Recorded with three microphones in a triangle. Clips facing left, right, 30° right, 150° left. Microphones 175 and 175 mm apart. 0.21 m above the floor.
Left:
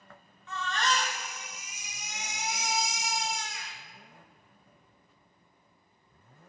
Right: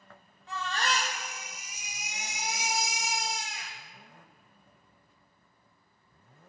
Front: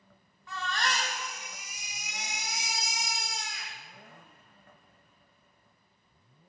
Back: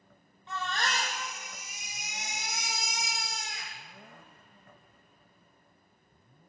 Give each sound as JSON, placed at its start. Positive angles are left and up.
{"t": 0.5, "sound": "a baby crying", "azimuth_deg": -145, "distance_m": 3.5}